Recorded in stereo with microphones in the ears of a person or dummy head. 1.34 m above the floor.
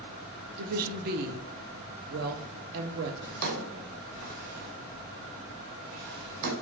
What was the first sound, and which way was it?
A woman speaking, 50° right (ahead or behind).